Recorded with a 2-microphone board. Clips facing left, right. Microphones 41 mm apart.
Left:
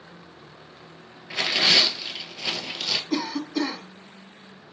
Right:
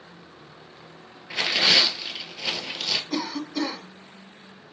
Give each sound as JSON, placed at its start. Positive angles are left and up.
{"t": 1.3, "sound": "tearing paper", "side_deg": 0, "distance_m": 0.6}
{"t": 3.1, "sound": "a cough", "side_deg": 5, "distance_m": 1.1}